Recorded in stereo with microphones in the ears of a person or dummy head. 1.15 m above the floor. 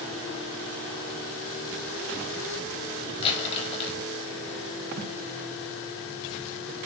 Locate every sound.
3.2 s crumpling: 30° left (ahead or behind), 0.9 m
5.0 s tape being pulled: 50° right (ahead or behind), 0.6 m